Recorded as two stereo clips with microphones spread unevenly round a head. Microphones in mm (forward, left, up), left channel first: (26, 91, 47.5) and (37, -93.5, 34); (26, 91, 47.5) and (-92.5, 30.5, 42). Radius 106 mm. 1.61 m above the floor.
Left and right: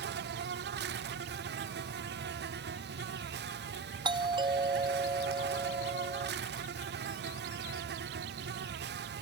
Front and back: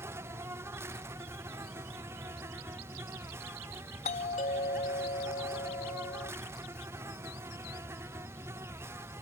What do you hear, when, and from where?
0.0 s an insect: 80° right
4.0 s a doorbell: 20° right